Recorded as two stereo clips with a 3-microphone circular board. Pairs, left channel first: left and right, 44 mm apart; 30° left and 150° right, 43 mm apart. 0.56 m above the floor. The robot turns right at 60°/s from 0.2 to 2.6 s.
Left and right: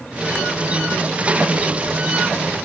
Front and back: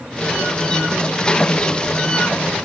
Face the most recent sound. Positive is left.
No sound to turn to.